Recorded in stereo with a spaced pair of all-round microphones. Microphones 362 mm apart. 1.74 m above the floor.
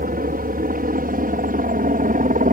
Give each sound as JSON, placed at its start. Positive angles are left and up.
{"t": 0.0, "sound": "a helicopter", "side_deg": -25}